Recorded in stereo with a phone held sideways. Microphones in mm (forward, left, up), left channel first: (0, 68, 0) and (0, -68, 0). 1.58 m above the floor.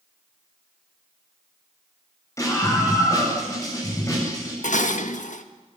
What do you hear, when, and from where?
2.4 s a scream: 20° left (ahead or behind), 10 m
4.6 s dishes clattering: 65° left (ahead or behind), 1.5 m